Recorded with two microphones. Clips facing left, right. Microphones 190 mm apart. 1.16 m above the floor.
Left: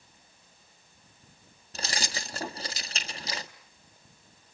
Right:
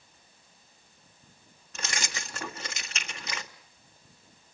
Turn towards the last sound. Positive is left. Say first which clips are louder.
# left 2 dB
turn(degrees=35)  # may be behind; listen again after turning